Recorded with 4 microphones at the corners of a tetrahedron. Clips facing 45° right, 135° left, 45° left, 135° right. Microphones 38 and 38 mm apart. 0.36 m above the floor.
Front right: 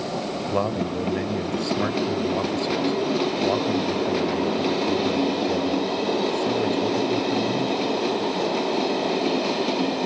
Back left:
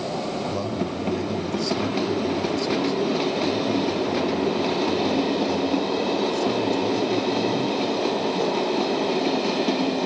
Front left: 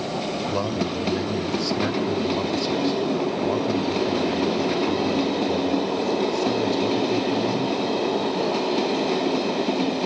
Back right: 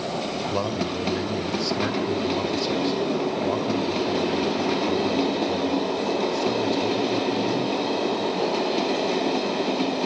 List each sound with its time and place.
0.5 s a man speaking: 45° right, 1.3 m